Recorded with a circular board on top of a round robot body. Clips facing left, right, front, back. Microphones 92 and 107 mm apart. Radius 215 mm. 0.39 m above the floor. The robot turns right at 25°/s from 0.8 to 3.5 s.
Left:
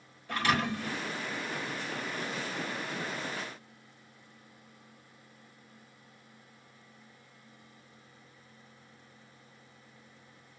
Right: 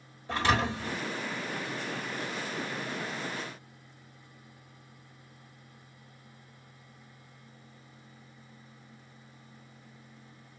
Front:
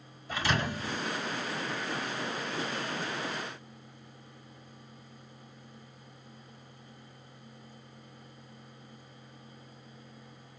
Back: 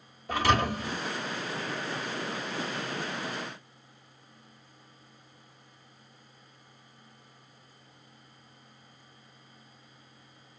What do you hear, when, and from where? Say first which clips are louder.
0.3 s a thud: right 2 dB, back 6 dB; 150° right, 1.4 m